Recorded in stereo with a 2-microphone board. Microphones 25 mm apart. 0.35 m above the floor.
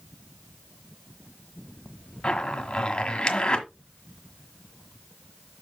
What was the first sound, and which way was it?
A zipper, 35° left (ahead or behind).